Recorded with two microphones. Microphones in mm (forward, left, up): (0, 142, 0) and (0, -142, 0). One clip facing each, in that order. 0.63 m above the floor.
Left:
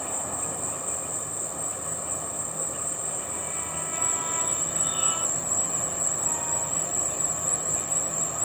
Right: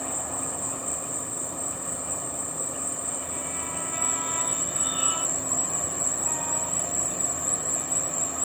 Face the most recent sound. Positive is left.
turn(degrees=-30)  # may be behind; listen again after turning